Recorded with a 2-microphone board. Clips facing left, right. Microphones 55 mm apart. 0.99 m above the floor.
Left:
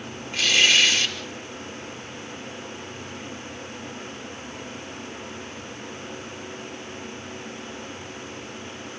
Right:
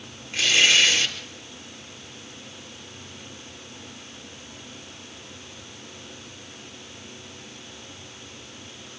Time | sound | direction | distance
0.3 | tearing paper | 10° right (ahead or behind) | 4.5 m